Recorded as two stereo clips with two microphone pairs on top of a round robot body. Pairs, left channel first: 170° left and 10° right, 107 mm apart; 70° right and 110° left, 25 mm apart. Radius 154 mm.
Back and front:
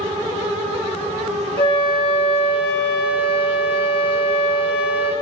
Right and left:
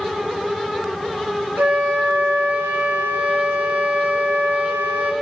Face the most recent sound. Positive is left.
turn(degrees=130)